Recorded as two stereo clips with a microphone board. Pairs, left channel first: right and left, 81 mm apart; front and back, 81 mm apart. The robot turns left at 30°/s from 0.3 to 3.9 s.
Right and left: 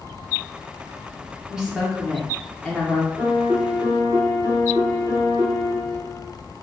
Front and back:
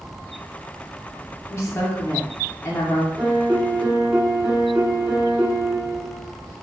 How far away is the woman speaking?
About 0.8 m.